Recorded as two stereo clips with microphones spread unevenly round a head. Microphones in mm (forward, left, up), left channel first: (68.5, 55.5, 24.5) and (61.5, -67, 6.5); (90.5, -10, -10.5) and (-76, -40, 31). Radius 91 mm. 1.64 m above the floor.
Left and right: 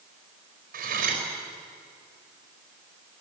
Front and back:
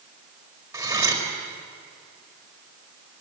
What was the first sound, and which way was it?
Cutlery clinking, 100° right.